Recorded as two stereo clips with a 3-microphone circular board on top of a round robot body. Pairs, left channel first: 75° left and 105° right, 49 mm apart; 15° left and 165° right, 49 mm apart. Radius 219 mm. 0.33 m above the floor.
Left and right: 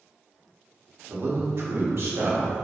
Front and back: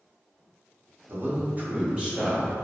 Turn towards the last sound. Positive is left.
turn(degrees=-85)